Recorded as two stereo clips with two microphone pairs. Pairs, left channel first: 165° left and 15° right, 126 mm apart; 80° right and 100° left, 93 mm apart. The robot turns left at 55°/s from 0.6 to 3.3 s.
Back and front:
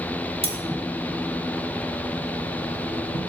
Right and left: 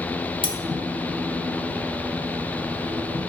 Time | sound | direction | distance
0.4 | cutlery clinking | 55° right | 1.2 m